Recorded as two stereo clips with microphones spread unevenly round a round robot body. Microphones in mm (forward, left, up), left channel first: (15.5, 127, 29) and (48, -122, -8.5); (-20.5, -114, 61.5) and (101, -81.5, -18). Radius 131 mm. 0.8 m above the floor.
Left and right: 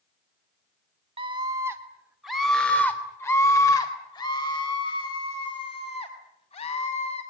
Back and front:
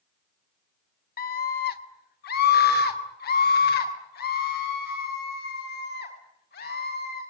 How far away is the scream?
About 2.0 m.